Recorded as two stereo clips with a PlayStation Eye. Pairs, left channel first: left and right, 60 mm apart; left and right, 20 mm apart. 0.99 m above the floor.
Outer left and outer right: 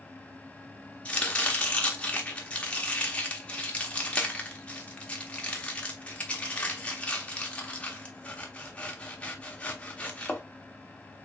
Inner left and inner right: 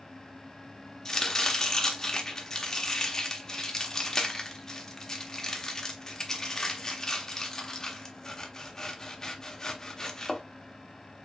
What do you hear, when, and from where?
1.1 s chopping: 20° left (ahead or behind), 1.1 m